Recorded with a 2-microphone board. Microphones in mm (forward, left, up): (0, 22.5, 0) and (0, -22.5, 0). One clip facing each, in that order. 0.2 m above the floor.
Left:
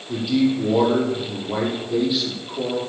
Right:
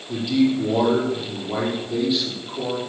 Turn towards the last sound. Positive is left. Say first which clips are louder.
# even
turn(degrees=5)  # may be behind; listen again after turning